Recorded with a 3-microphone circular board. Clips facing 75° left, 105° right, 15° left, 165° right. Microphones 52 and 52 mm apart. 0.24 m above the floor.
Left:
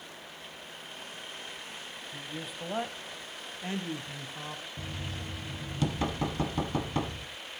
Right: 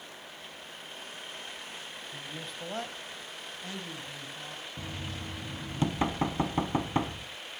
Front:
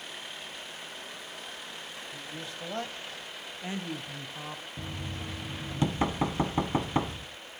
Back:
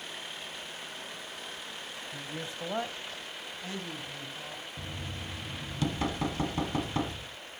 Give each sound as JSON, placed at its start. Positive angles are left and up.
{"t": 2.1, "sound": "a man speaking", "azimuth_deg": 170, "distance_m": 1.5}
{"t": 4.8, "sound": "knocking", "azimuth_deg": -45, "distance_m": 1.6}